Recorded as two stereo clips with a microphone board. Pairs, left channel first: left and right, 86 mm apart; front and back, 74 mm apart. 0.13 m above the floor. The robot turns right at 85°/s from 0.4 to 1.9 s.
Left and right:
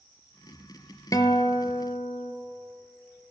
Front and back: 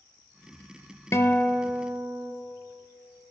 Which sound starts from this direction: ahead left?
A guitar, at 1.1 s.